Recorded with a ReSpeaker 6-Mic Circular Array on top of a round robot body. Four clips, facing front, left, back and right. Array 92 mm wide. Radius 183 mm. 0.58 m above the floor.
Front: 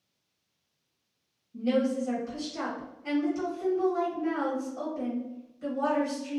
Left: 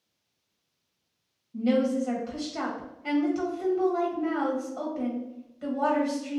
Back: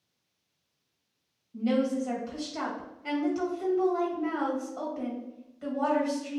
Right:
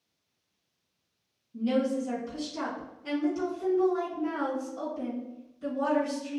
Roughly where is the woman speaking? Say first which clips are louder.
Left 3 dB, even; left.